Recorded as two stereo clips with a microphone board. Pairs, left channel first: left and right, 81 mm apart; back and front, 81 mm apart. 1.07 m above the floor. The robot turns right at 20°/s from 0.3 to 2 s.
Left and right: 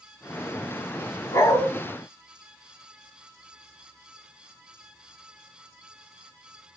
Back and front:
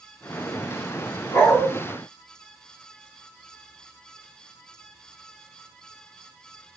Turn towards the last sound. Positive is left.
turn(degrees=130)